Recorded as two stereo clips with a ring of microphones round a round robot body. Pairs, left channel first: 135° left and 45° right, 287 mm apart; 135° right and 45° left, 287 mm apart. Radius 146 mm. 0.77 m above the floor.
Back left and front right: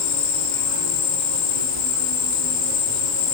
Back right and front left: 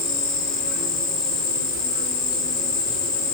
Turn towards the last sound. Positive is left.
turn(degrees=165)